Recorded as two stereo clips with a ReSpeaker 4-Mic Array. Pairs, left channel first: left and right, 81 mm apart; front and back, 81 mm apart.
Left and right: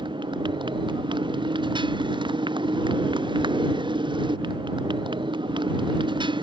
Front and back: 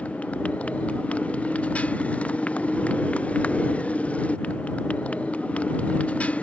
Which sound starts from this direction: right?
A motorcycle, at 0.0 s.